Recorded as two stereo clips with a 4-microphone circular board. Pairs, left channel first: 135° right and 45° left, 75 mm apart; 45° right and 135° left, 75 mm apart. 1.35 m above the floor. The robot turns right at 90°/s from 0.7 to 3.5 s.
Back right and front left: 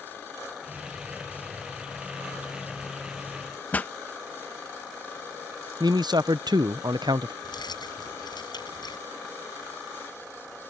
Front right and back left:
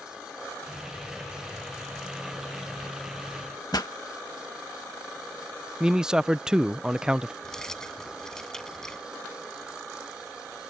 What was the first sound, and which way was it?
A pop, 70° right.